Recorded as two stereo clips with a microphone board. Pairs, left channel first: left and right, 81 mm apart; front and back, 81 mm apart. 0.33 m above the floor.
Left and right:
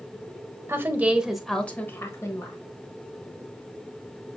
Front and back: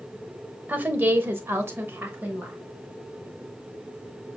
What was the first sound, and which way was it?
A woman speaking, 125° right.